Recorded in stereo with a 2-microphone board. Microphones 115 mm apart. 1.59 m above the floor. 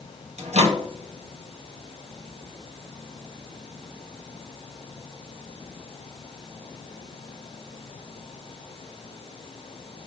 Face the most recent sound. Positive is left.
turn(degrees=-75)  # may be behind; listen again after turning